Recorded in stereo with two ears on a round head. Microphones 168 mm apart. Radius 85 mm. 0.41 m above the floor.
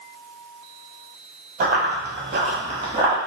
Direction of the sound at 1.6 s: 45° right (ahead or behind).